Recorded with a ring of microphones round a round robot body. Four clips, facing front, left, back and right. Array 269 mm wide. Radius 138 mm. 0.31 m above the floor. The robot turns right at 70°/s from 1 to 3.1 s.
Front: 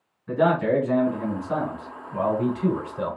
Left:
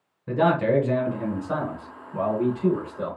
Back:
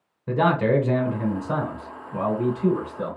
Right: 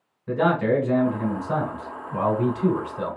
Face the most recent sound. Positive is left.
turn(degrees=-35)